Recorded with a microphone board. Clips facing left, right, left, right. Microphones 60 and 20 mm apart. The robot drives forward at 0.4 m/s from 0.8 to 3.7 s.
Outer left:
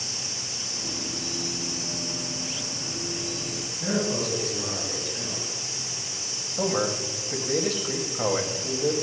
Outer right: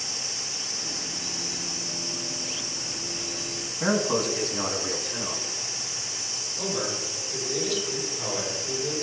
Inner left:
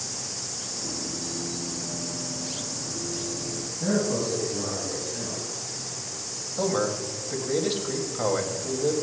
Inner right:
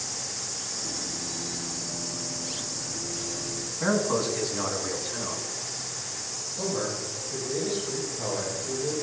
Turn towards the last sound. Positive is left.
turn(degrees=50)  # may be behind; listen again after turning